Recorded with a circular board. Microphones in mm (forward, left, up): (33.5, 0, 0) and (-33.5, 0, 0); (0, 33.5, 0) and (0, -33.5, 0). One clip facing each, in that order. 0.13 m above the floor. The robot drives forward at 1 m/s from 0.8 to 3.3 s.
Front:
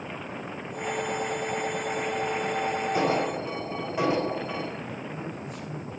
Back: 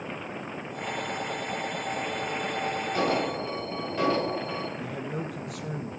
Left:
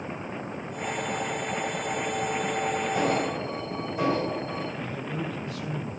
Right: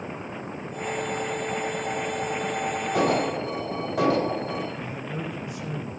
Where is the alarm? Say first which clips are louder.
Even, right 6 dB; 75° right, 5 m.